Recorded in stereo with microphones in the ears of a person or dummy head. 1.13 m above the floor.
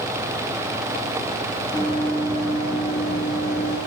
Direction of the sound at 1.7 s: 20° left (ahead or behind).